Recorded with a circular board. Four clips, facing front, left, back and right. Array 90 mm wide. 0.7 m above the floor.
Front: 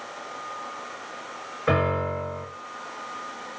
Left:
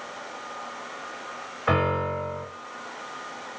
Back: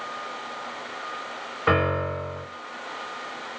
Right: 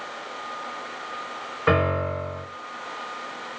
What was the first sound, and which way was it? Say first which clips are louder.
A piano: right 2 dB, back 1 dB; 130° right.